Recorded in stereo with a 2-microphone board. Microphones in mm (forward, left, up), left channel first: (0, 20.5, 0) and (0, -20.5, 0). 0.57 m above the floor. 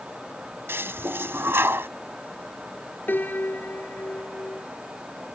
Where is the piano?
50° left (ahead or behind).